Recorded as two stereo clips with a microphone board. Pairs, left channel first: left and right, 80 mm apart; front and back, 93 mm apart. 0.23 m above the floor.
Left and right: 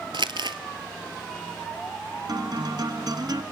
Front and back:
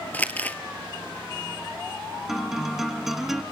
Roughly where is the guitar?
Right.